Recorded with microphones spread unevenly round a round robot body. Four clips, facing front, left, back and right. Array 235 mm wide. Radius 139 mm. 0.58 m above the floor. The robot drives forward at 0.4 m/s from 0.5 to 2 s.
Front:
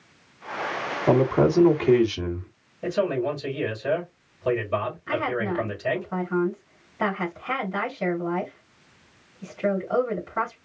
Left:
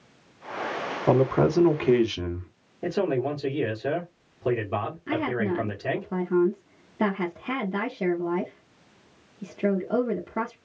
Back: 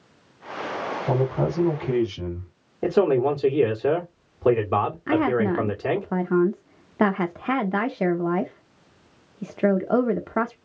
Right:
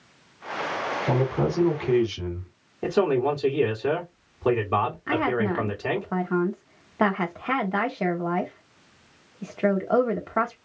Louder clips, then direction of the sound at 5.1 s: Left 1 dB, back 5 dB; straight behind.